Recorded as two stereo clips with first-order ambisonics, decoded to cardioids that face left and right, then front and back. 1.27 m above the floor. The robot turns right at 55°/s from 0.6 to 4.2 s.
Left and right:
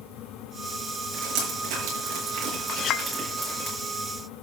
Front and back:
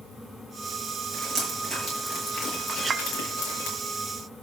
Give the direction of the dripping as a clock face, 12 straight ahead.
4 o'clock.